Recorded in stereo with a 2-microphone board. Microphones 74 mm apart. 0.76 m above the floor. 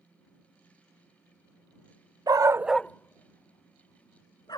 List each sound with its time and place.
2.3 s a dog barking: 65° right (ahead or behind); by 4.6 s 70° left (ahead or behind)